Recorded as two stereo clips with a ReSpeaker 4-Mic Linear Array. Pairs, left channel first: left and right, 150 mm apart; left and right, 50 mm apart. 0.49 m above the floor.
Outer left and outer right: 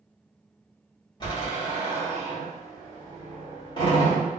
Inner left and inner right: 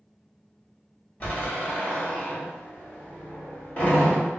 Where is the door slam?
30° left (ahead or behind), 1.4 m.